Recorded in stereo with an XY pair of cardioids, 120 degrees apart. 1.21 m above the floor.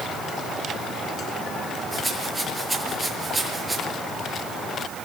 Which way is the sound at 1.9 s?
5° right.